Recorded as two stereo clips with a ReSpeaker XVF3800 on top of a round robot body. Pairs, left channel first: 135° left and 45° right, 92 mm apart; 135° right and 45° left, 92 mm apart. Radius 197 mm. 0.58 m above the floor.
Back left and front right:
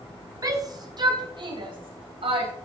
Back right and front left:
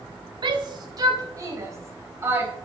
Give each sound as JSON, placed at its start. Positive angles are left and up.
{"t": 0.4, "sound": "a shout", "azimuth_deg": 10, "distance_m": 3.0}